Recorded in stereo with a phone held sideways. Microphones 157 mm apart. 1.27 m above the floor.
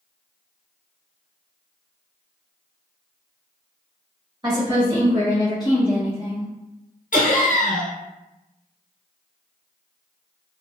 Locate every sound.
4.4 s a woman speaking: 30° right (ahead or behind), 1.0 m; by 6.5 s 60° left (ahead or behind), 1.1 m
7.1 s laughter: 60° left (ahead or behind), 0.8 m